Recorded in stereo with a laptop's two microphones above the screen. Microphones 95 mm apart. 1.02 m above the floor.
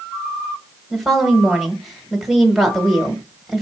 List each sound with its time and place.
0.9 s a woman speaking: centre (ahead or behind), 1.3 m